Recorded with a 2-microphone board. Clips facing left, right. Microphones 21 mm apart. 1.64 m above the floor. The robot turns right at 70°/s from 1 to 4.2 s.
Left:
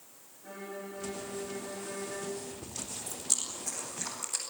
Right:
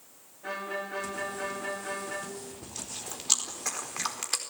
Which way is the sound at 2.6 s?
Centre (ahead or behind).